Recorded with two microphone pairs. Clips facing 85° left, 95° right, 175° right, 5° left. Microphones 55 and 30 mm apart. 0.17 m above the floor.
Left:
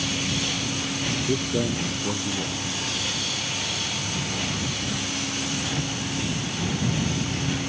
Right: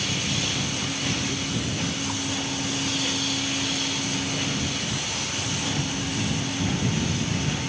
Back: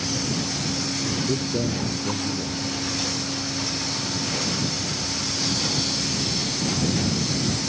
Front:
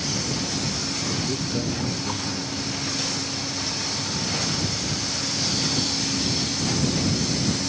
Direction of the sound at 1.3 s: 115° left.